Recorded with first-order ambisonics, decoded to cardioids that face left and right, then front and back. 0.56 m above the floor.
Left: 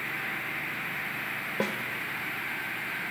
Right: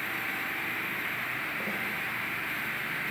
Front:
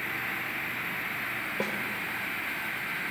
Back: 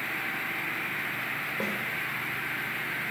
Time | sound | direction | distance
1.6 | a snare drum | 75° left | 2.0 m